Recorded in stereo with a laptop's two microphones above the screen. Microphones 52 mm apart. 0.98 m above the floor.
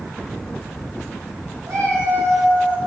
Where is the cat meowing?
75° right (ahead or behind), 3.5 m.